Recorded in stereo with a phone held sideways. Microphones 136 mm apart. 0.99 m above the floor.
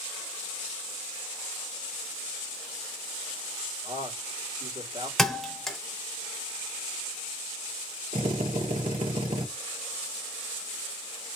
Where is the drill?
85° right, 1.6 m.